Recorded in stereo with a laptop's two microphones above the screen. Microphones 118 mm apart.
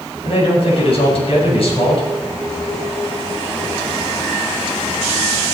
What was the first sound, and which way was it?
A man speaking, 55° left (ahead or behind).